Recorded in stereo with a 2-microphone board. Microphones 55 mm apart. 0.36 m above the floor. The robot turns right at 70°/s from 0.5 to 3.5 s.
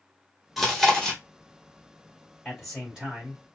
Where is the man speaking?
160° left, 1.4 m; by 3.4 s 130° right, 1.4 m.